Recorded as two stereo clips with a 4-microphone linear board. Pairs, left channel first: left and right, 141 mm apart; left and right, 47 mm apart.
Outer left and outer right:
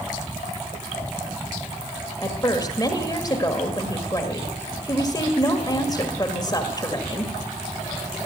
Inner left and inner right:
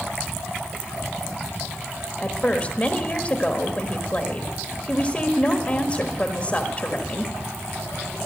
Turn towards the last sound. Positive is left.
turn(degrees=25)  # may be behind; listen again after turning